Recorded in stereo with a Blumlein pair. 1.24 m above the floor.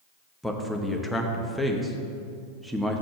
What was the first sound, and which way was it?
A man speaking, straight ahead.